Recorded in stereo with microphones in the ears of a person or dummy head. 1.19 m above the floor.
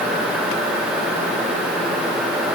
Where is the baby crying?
No baby crying in this recording.